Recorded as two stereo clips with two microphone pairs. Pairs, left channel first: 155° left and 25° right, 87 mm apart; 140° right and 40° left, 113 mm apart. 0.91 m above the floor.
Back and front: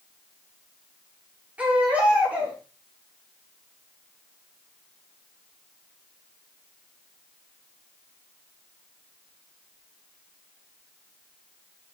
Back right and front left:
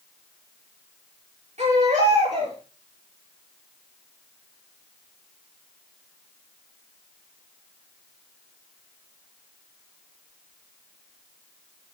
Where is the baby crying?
50° left, 6.5 m.